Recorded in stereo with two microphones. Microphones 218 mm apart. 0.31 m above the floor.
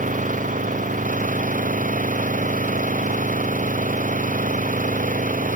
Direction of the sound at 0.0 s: 40° right (ahead or behind).